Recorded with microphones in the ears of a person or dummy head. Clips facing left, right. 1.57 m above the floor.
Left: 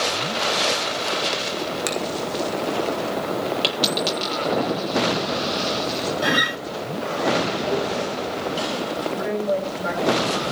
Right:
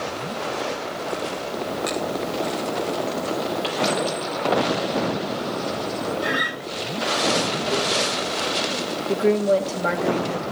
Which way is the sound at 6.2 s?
80° left.